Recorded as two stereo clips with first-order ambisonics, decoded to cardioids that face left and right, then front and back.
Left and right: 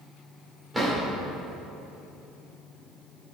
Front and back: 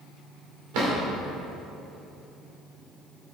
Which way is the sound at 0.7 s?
170° right.